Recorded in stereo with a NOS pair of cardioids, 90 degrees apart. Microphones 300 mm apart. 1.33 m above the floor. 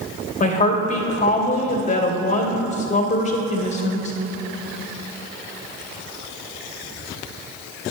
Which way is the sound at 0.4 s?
25° left.